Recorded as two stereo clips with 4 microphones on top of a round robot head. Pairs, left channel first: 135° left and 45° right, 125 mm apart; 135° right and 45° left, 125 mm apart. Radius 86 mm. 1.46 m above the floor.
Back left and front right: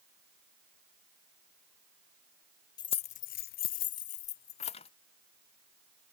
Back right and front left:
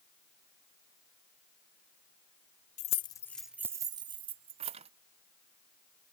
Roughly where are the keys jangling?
Behind.